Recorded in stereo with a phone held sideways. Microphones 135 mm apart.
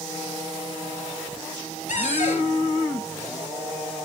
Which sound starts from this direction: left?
A cupboard door, at 1.9 s.